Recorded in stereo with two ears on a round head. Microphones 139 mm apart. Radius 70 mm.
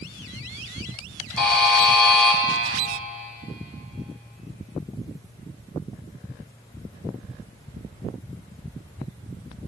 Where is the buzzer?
5° left (ahead or behind), 3 m.